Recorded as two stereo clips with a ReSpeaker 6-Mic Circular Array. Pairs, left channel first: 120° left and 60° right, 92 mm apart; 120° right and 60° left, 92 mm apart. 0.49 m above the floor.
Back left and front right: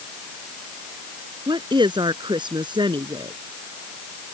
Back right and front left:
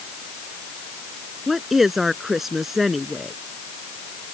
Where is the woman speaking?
30° right.